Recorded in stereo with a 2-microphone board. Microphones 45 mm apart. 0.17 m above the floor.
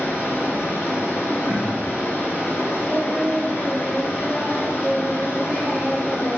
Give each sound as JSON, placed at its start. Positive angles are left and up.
{"t": 0.0, "sound": "running water", "side_deg": 55, "distance_m": 1.5}
{"t": 1.5, "sound": "throat clearing", "side_deg": 80, "distance_m": 2.5}
{"t": 2.9, "sound": "singing", "side_deg": 25, "distance_m": 1.4}